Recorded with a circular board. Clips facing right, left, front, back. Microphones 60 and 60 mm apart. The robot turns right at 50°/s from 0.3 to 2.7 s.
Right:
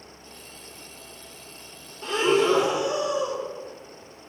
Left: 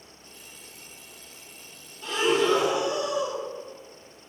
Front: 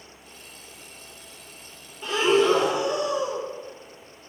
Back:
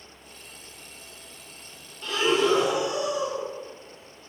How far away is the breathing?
About 0.6 m.